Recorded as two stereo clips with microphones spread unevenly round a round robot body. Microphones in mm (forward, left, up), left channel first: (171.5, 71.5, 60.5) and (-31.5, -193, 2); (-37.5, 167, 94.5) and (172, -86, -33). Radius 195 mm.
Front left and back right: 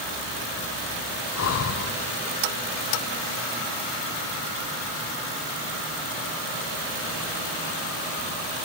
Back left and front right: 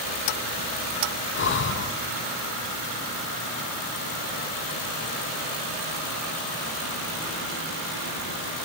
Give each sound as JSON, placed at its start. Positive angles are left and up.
{"t": 1.4, "sound": "breathing", "azimuth_deg": 60, "distance_m": 0.6}